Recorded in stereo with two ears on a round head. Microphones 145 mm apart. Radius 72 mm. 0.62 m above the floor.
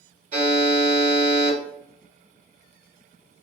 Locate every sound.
0.3 s a buzzer: 50° right (ahead or behind), 2.0 m